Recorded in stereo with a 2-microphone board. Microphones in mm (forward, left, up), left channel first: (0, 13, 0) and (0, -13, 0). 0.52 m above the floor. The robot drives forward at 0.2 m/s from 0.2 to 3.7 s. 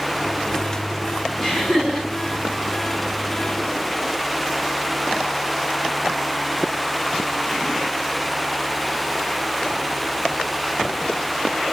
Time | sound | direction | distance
1.4 | laughter | 20° left (ahead or behind) | 5.5 m